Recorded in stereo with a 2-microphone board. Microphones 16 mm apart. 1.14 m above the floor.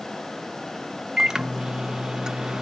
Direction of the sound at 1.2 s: 40° right (ahead or behind).